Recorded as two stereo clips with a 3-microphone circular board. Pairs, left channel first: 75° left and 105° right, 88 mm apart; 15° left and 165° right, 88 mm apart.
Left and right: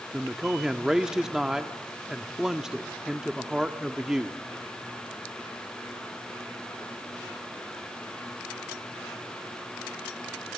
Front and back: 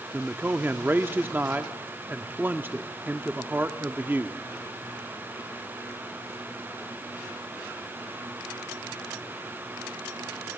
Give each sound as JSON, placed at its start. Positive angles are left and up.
{"t": 0.1, "sound": "a man speaking", "azimuth_deg": 180, "distance_m": 0.7}